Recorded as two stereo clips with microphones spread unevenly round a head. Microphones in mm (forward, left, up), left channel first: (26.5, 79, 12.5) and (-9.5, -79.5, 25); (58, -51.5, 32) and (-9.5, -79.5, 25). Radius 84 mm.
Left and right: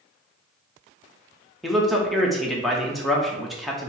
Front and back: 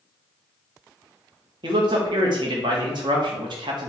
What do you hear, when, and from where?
1.6 s a man speaking: 165° left, 0.9 m